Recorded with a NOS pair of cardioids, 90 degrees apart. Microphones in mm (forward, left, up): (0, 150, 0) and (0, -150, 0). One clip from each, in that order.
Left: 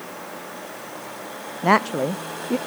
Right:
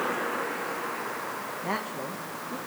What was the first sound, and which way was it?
A woman speaking, 70° left.